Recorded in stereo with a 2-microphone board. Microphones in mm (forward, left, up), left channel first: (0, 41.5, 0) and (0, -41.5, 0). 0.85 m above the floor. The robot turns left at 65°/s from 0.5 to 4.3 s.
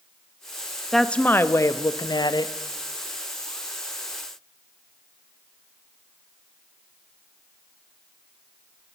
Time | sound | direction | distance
0.9 | a woman speaking | straight behind | 0.5 m